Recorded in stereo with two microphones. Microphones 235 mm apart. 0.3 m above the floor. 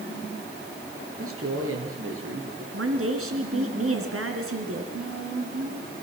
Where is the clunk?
No clunk in this recording.